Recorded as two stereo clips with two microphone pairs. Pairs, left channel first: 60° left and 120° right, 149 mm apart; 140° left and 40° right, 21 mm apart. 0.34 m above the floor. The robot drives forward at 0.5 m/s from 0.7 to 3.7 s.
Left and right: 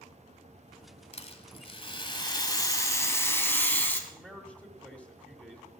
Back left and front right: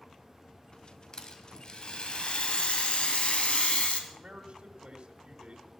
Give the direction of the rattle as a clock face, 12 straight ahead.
9 o'clock.